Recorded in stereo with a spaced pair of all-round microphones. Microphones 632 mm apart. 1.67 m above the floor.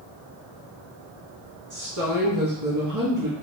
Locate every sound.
1.7 s a woman speaking: 30° right (ahead or behind), 0.9 m